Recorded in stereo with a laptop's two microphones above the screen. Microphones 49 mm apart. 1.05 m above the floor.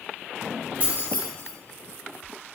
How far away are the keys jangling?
About 1.0 m.